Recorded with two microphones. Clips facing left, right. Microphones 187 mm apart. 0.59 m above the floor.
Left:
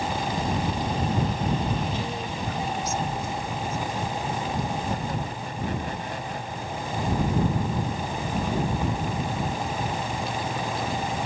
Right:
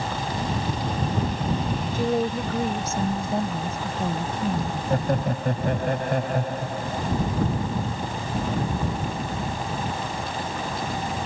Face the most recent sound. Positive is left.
turn(degrees=-65)  # may be behind; listen again after turning